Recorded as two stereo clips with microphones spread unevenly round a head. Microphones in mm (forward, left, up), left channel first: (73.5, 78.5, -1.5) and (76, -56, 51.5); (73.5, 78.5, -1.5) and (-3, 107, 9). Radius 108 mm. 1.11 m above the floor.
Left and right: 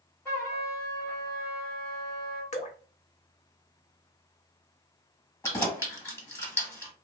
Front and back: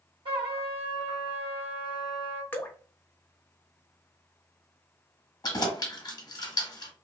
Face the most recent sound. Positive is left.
turn(degrees=15)